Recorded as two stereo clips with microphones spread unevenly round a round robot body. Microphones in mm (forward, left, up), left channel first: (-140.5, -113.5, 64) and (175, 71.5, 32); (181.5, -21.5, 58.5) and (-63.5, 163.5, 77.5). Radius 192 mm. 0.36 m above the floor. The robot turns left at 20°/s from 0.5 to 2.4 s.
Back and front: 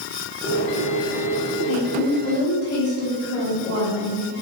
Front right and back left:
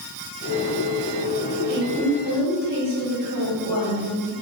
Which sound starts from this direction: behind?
A woman speaking, at 1.7 s.